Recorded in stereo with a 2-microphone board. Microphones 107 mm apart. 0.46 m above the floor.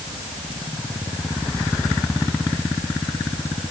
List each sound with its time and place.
Only background noise.